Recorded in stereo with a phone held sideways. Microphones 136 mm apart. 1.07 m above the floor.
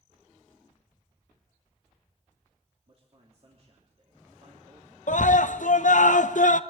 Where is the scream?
60° left (ahead or behind), 0.7 m.